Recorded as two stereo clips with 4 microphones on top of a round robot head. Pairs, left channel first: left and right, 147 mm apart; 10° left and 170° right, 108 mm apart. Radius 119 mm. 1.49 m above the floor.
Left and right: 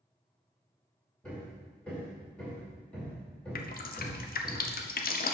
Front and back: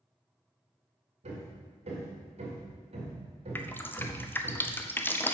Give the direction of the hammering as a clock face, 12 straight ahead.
6 o'clock.